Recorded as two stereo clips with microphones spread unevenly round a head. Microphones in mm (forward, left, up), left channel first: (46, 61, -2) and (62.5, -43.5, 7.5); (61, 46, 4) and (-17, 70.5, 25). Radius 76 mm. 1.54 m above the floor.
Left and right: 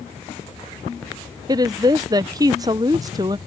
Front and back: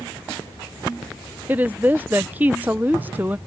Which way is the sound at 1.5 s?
135° right.